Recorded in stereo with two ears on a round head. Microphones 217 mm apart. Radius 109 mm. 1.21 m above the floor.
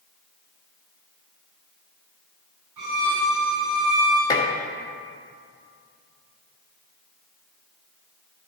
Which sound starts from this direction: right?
A violin, at 2.8 s.